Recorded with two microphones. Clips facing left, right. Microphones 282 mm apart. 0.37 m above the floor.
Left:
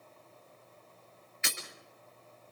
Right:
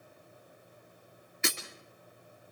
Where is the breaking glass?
55° right (ahead or behind), 4 m.